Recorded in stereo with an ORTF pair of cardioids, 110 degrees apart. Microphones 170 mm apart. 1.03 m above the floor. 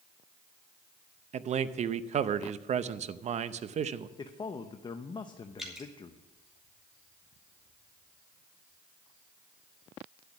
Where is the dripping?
Straight ahead, 2.5 m.